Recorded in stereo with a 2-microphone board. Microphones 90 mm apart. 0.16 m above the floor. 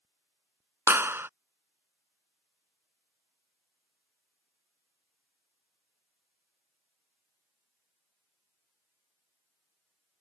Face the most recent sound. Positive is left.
turn(degrees=-25)  # may be behind; listen again after turning